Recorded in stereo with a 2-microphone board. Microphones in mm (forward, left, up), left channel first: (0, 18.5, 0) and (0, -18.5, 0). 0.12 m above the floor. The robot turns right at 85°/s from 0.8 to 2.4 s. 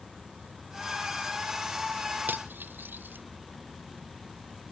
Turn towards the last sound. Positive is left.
turn(degrees=-80)